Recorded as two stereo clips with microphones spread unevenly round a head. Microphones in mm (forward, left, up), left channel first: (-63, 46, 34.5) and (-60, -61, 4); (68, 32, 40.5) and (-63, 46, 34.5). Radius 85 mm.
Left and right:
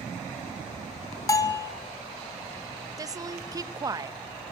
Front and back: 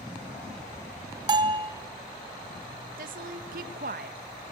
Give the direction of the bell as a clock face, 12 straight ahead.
8 o'clock.